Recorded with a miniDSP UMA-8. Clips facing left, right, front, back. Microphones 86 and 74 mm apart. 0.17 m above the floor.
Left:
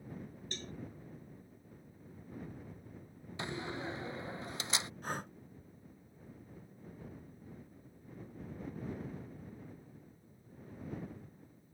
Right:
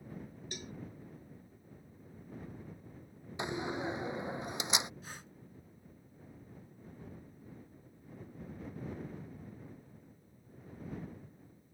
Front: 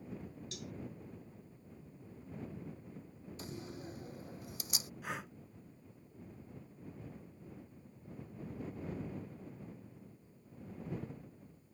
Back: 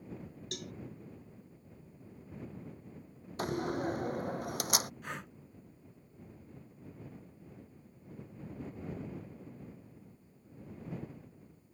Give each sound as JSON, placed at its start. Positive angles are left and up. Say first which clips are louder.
{"t": 0.5, "sound": "a cowbell", "louder": "even, back 7 dB", "azimuth_deg": -165}
{"t": 3.4, "sound": "a door slam", "louder": "right 4 dB, back 14 dB", "azimuth_deg": -160}
{"t": 5.0, "sound": "breathing", "louder": "left 10 dB, even", "azimuth_deg": 85}